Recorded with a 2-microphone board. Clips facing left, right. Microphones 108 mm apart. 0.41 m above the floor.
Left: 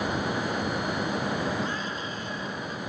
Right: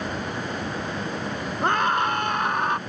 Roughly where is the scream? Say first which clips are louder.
Right 10 dB; right.